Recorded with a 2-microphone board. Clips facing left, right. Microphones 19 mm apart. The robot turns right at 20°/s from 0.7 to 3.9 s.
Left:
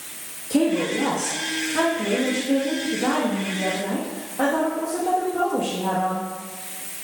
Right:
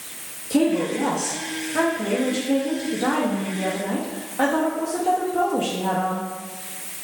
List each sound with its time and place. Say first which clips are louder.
0.5 s a woman speaking: even; 160° right, 0.7 m; by 6.3 s 95° right, 0.7 m